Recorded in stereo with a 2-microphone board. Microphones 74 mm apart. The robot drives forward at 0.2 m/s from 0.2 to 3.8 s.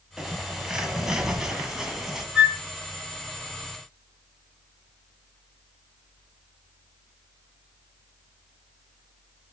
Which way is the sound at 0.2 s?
10° right (ahead or behind).